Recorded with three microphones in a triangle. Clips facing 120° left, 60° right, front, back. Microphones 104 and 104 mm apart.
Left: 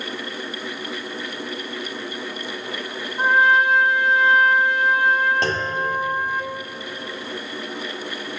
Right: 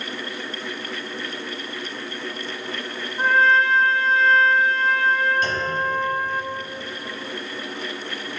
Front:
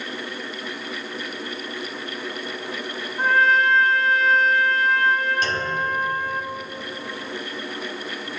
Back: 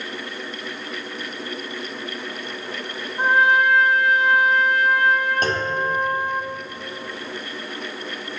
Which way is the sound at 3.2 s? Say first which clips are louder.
Left 1 dB, back 1 dB; 155° left.